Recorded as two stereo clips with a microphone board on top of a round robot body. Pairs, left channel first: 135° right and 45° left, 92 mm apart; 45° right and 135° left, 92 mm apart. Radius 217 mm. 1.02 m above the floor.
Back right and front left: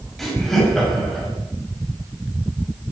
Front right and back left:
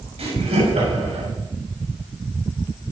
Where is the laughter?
135° left, 7 m.